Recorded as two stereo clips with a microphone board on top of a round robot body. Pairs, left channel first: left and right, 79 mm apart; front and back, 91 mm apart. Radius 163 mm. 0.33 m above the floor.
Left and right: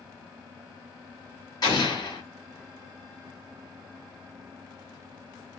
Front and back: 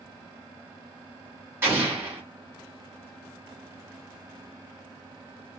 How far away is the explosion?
About 3 m.